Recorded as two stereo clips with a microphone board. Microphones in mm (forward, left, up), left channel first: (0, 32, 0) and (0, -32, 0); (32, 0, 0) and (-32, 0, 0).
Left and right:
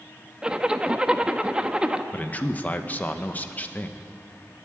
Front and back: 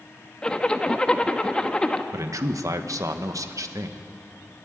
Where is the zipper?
45° right, 0.8 m.